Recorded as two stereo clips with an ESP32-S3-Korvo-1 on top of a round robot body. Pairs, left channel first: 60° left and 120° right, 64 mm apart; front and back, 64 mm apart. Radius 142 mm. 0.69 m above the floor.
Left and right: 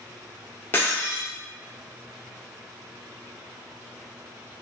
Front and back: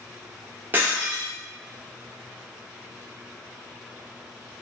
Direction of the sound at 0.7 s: 115° left.